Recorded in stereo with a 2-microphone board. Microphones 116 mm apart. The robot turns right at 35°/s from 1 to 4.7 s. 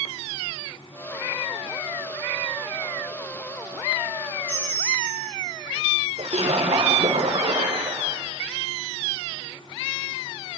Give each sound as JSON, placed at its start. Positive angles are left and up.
{"t": 4.5, "sound": "a bell", "side_deg": -55, "distance_m": 7.0}
{"t": 6.2, "sound": "a splash", "side_deg": -60, "distance_m": 5.0}